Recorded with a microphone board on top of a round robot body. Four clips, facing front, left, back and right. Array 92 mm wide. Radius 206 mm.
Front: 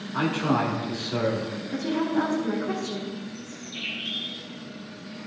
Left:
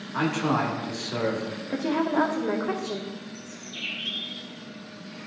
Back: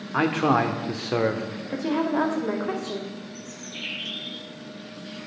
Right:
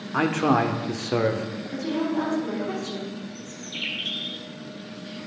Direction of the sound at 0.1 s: 145° right.